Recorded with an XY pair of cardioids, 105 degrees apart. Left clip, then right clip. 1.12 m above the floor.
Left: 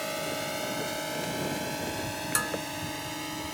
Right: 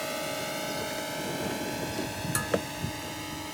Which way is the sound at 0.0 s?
5° left.